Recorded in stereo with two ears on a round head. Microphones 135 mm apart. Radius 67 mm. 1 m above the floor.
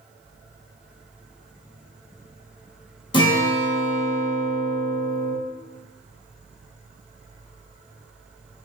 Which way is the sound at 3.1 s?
30° left (ahead or behind).